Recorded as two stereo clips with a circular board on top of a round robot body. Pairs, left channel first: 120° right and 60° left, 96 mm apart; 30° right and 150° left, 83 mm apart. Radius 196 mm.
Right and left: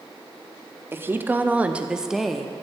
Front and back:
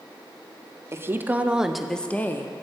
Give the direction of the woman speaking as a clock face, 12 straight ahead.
8 o'clock.